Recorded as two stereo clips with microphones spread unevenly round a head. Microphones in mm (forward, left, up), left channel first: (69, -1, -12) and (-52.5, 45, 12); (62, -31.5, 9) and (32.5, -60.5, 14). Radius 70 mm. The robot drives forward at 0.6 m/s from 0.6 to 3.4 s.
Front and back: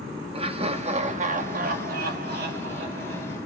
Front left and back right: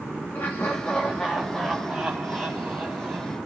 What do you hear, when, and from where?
0.3 s laughter: 110° left, 1.1 m; by 3.4 s 155° left, 2.5 m